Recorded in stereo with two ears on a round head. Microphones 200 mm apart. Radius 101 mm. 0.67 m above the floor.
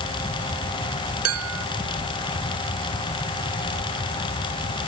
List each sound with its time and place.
1.2 s dishes clattering: 70° right (ahead or behind)